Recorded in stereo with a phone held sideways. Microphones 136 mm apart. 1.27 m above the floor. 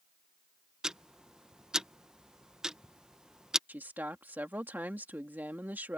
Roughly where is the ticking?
Centre.